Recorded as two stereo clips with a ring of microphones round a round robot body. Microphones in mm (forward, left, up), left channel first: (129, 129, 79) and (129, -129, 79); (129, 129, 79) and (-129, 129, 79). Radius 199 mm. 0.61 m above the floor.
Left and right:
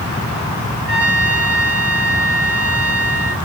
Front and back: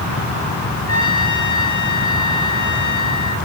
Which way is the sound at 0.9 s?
40° right.